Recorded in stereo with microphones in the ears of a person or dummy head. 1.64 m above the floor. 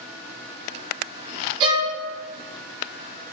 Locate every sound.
1.6 s a violin: 30° right (ahead or behind), 0.7 m